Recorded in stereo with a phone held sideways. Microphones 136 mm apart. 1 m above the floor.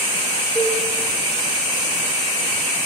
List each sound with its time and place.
0.6 s dishes clattering: 15° right (ahead or behind), 4 m